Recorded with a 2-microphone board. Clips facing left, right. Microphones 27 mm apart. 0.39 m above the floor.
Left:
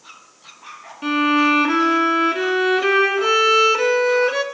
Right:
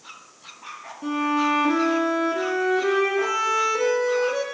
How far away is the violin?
About 1.2 m.